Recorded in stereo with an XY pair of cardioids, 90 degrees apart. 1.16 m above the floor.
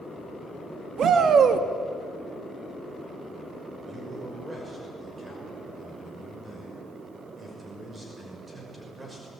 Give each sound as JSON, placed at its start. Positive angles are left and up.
{"t": 1.0, "sound": "a shout", "azimuth_deg": -65, "distance_m": 1.5}
{"t": 3.9, "sound": "a man speaking", "azimuth_deg": -30, "distance_m": 6.0}